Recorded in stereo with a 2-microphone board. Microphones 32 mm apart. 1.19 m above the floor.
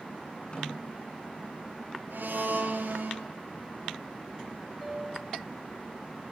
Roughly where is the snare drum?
Left.